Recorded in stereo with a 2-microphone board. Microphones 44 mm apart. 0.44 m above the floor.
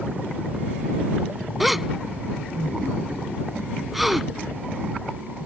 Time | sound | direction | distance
1.6 | a gasp | 5° right (ahead or behind) | ?